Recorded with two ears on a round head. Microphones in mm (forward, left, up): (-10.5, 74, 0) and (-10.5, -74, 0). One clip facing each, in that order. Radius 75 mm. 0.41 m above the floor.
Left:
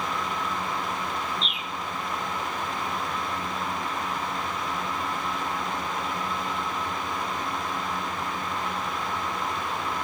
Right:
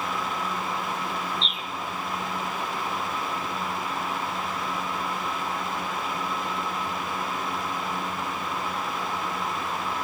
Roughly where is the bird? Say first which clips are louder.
Even; centre.